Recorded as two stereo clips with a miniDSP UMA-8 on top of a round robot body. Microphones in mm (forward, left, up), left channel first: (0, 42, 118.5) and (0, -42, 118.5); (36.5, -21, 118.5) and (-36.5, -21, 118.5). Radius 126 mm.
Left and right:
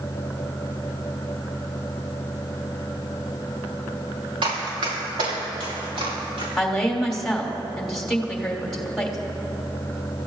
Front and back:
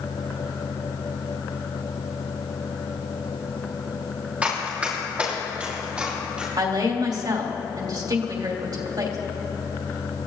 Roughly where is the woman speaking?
Behind.